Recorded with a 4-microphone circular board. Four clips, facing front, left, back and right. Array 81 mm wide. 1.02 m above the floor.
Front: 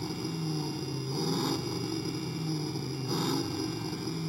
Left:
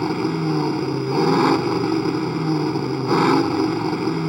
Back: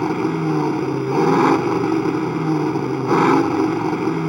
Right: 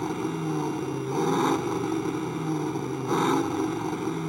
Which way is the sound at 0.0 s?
160° left.